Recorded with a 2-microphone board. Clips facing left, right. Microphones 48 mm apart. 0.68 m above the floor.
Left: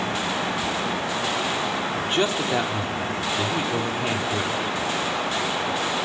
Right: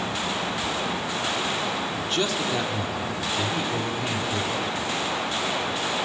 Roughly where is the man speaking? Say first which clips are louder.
Left 5 dB; left.